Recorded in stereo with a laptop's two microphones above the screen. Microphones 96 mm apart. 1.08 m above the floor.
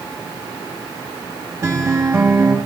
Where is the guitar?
30° right (ahead or behind), 1.4 m.